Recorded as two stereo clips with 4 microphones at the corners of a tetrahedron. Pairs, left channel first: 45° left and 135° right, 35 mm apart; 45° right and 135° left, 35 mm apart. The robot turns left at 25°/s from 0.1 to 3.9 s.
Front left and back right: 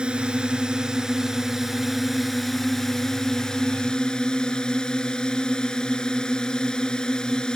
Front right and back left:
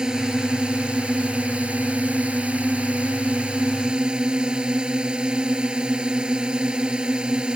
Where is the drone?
175° right; by 7.6 s 90° left.